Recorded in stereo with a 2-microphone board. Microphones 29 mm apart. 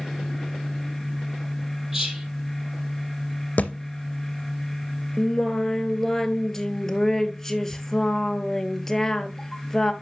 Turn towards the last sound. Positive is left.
turn(degrees=15)  # may be behind; listen again after turning